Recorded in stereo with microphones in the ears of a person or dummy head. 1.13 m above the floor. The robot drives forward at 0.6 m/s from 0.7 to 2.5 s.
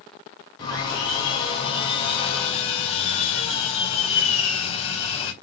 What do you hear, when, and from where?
0.6 s sawing: 35° left (ahead or behind), 5 m; by 5.3 s 40° left (ahead or behind), 4 m